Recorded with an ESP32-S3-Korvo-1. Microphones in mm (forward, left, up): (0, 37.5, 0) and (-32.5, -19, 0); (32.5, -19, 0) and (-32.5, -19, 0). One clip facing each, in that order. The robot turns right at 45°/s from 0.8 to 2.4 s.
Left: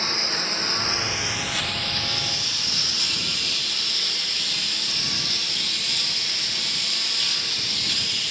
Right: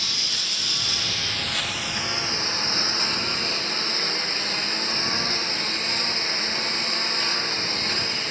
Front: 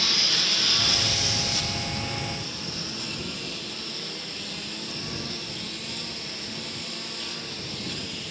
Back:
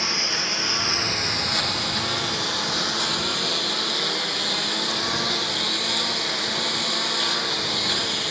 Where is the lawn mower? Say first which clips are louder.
Left 5 dB, back 2 dB; 115° left; by 8.3 s 175° right.